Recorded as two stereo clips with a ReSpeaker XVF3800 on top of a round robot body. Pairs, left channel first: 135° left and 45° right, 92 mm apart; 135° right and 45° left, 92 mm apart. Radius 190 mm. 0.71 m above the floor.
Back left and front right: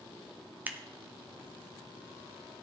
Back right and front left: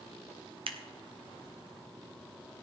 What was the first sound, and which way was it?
Scissors, 25° left.